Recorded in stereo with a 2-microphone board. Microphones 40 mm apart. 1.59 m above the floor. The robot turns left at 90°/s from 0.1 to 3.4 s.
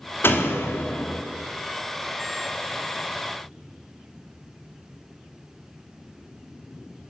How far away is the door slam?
About 3.5 m.